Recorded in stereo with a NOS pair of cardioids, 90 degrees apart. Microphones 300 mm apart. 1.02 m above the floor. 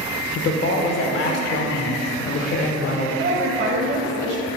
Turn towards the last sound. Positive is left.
turn(degrees=-50)